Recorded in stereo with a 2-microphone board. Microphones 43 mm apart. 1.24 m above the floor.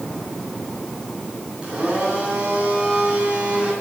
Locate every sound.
1.6 s a blender: 20° right (ahead or behind), 9 m